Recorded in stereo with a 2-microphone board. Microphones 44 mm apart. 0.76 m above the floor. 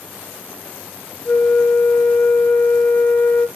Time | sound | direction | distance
1.2 | a flute | 30° left (ahead or behind) | 0.6 m